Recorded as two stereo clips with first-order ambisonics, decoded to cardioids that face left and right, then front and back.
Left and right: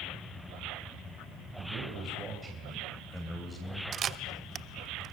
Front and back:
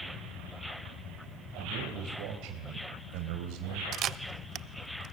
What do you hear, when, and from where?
1.6 s a man speaking: 145° right, 3 m; by 3.8 s 165° left, 3 m
3.9 s a camera shutter: 140° right, 0.5 m